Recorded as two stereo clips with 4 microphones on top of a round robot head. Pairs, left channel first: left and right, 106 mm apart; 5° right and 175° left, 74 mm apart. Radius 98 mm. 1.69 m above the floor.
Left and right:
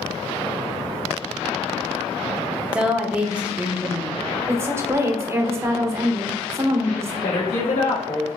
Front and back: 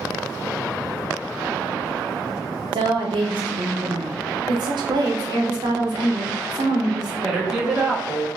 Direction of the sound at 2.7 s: 170° right.